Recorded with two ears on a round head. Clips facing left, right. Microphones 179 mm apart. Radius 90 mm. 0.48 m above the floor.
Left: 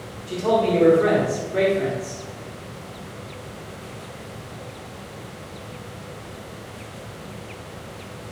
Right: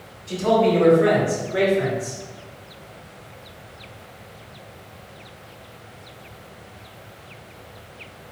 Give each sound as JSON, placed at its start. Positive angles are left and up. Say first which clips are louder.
{"t": 0.3, "sound": "a man speaking", "louder": "right 2 dB", "side_deg": 15, "distance_m": 1.7}